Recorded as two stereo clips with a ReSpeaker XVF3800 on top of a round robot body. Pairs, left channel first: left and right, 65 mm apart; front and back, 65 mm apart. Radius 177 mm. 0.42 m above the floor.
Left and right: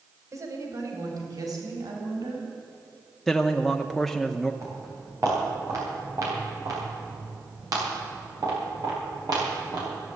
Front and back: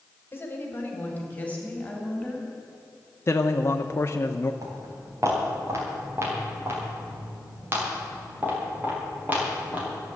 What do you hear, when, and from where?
0.3 s a woman speaking: 55° right, 3 m; by 2.5 s 75° right, 4.5 m
3.3 s a man speaking: straight ahead, 0.9 m
4.6 s footsteps: 140° right, 7 m; by 9.9 s 115° right, 8 m